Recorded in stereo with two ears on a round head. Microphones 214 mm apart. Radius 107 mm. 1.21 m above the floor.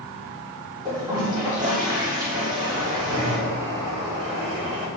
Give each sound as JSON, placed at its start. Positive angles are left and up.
{"t": 0.8, "sound": "a toilet flushing", "side_deg": -15, "distance_m": 4.0}
{"t": 2.6, "sound": "a bird", "side_deg": -65, "distance_m": 3.0}